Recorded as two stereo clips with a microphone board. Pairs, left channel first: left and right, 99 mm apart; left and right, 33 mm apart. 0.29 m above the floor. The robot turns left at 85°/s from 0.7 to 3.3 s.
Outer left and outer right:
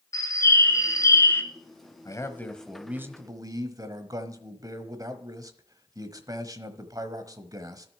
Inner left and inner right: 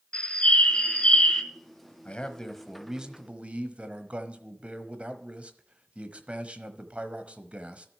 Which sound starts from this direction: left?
A bird, at 0.1 s.